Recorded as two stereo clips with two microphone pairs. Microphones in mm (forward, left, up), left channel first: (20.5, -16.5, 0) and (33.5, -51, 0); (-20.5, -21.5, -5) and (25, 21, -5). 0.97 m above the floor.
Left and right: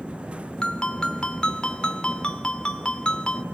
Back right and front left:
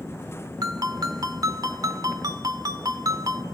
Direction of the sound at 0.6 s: 50° left.